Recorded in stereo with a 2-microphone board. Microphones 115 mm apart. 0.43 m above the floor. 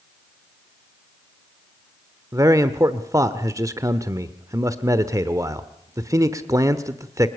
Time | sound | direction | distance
2.3 | a man speaking | 30° right (ahead or behind) | 1.1 m